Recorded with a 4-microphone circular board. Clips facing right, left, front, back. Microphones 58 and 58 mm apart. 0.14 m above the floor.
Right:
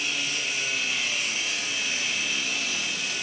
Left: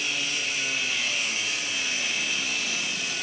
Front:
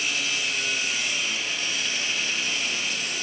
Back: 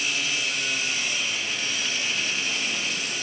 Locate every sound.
Only background noise.